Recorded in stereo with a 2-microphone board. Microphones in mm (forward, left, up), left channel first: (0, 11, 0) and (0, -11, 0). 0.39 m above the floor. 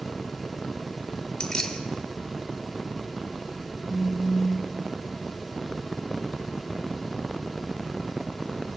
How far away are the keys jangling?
About 0.7 m.